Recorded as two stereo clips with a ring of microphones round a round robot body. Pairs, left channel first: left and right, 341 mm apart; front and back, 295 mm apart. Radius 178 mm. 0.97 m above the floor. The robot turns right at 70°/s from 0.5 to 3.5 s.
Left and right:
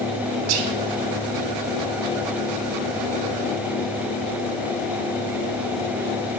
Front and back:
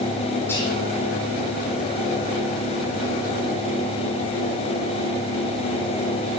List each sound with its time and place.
0.5 s whispering: 85° right, 0.7 m; by 0.7 s 65° right, 0.7 m